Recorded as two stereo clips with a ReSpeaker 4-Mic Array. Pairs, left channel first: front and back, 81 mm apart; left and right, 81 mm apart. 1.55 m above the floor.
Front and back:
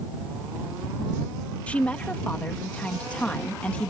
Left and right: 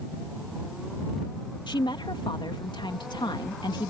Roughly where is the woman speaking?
Left.